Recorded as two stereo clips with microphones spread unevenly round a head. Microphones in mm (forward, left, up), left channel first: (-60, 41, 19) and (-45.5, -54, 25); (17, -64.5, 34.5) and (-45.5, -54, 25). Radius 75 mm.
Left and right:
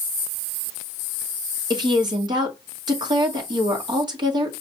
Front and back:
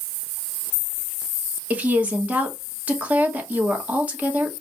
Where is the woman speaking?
125° right, 1.8 m.